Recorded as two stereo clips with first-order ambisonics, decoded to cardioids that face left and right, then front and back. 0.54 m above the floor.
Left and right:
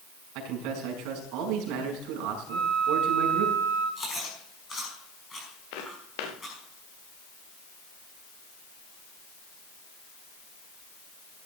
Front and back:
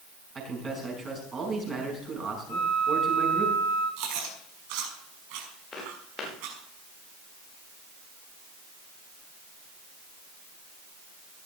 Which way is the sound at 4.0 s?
170° left.